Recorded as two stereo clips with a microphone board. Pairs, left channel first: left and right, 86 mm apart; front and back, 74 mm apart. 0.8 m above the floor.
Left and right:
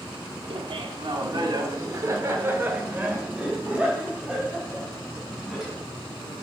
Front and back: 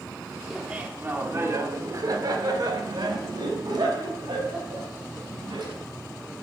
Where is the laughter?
100° right, 1.6 m; by 5.8 s 175° right, 5 m.